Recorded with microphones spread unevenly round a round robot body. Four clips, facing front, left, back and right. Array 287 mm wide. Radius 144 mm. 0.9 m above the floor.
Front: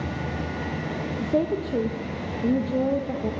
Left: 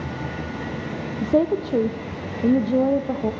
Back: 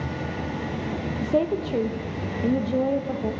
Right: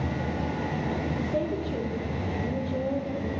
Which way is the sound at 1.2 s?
90° left.